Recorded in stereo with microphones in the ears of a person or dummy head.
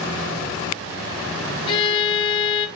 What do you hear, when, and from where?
1.7 s a violin: 25° left (ahead or behind), 1.6 m